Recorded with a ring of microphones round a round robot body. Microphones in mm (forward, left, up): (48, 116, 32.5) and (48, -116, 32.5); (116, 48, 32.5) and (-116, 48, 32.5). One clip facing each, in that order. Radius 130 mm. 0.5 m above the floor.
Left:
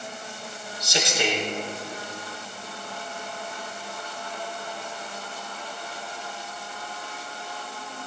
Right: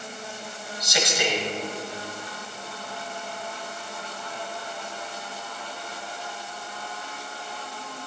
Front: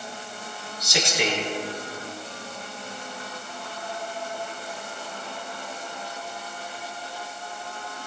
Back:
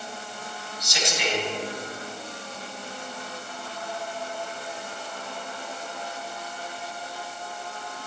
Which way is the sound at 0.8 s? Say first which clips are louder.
Even, front 4 dB; 30° left.